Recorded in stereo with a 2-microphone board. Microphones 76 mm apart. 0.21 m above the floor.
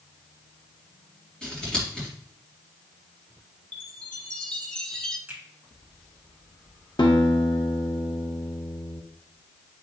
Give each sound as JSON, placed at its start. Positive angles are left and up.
{"t": 1.4, "sound": "scissors", "side_deg": 10, "distance_m": 4.0}
{"t": 3.7, "sound": "a chime", "side_deg": 15, "distance_m": 1.4}
{"t": 5.3, "sound": "a finger snap", "side_deg": -20, "distance_m": 2.5}
{"t": 7.0, "sound": "a guitar", "side_deg": 80, "distance_m": 1.6}